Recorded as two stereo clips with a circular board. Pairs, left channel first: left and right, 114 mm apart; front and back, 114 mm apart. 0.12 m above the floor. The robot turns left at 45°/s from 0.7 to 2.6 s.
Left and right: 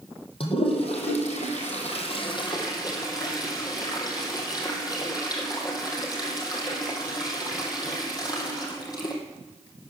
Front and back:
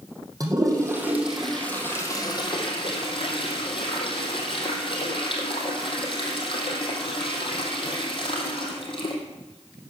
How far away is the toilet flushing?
About 3 m.